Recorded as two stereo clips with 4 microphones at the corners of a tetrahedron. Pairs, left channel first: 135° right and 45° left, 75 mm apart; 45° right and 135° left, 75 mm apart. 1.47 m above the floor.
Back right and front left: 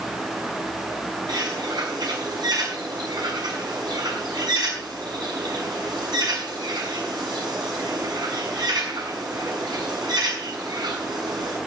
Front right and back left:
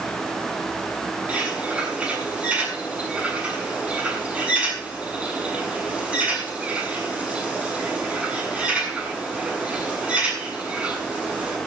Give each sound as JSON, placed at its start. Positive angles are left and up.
{"t": 1.3, "sound": "a bird", "azimuth_deg": 60, "distance_m": 7.0}